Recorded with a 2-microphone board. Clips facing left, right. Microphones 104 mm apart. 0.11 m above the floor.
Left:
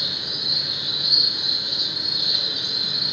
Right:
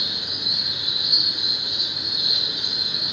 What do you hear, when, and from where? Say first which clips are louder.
0.0 s an insect: even; 80° left, 1.9 m